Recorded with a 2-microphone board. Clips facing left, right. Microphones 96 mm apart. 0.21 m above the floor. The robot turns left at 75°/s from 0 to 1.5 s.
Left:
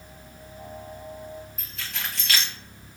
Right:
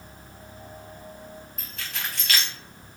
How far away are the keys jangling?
About 0.7 m.